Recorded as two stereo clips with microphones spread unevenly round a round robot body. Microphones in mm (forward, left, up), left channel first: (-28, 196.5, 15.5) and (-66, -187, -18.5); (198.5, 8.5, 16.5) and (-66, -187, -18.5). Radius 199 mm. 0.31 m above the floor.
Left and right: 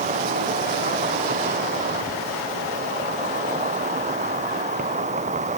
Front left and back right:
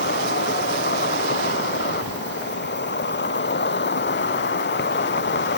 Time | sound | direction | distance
0.0 | an insect | 20° right | ?